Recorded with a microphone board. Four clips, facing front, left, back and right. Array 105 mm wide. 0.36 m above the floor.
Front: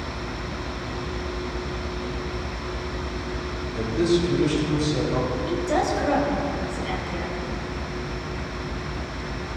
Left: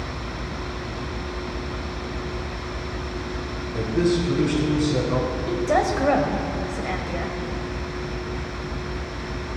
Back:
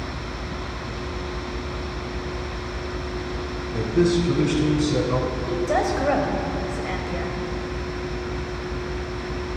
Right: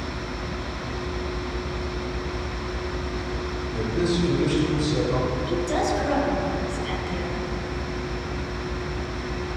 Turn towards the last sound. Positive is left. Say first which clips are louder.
# left 5 dB, back 2 dB
turn(degrees=115)